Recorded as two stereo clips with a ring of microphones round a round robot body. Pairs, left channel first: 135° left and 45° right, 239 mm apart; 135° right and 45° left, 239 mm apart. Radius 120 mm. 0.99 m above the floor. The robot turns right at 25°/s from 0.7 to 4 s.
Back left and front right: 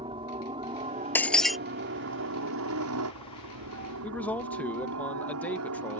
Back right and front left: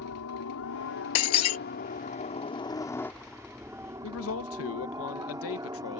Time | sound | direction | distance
0.0 | a helicopter | 115° right | ?
1.1 | breaking glass | 145° right | ?
4.0 | a man speaking | 145° right | ?